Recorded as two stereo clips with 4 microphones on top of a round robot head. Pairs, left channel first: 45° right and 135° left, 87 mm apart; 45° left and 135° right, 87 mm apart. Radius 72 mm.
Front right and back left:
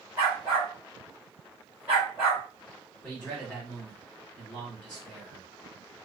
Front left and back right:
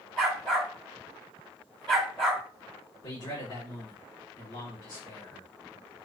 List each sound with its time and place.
0.2 s a dog barking: 100° left, 1.4 m
3.0 s a man speaking: 30° left, 2.5 m